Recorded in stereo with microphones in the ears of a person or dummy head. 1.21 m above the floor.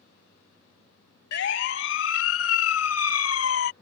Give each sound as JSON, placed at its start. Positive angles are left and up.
{"t": 1.3, "sound": "a siren", "side_deg": 70}